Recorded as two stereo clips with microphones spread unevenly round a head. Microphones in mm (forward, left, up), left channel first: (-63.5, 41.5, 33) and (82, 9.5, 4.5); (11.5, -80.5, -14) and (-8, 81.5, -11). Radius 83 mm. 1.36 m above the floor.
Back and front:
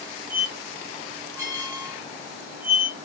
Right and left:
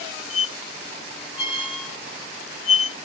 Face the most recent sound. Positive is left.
turn(degrees=-90)